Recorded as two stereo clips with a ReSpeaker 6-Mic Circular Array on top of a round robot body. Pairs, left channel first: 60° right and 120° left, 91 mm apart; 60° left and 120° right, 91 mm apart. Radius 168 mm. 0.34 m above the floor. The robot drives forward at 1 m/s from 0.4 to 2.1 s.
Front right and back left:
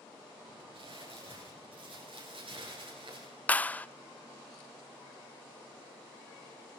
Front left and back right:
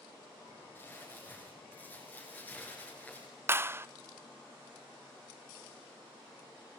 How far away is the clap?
About 0.7 m.